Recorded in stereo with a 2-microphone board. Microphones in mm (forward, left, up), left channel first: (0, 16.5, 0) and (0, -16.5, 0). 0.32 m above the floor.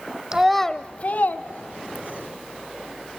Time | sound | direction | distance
0.3 | a child speaking | 20° right (ahead or behind) | 0.8 m